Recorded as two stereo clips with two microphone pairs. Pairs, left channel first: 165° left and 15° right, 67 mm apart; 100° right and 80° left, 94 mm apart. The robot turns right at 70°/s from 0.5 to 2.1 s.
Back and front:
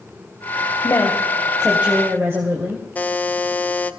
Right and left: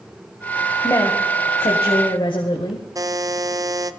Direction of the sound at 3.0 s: 115° left.